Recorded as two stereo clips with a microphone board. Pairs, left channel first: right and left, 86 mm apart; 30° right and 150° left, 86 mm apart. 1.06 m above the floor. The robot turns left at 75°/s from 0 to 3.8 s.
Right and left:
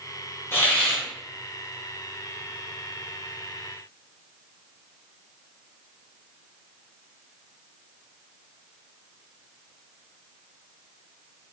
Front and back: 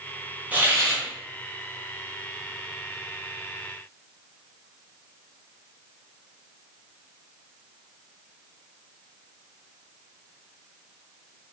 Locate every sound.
0.5 s a hiss: 145° right, 0.7 m; by 1.0 s 175° left, 0.7 m